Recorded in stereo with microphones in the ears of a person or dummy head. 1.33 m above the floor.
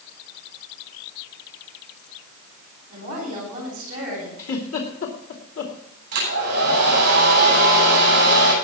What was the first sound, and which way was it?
A woman speaking, 45° right (ahead or behind).